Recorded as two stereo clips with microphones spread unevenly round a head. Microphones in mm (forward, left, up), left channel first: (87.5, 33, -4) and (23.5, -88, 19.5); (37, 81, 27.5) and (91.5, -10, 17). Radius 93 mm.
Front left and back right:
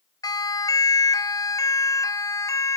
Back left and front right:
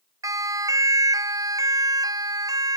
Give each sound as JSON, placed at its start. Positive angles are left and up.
{"t": 0.2, "sound": "a siren", "azimuth_deg": 0}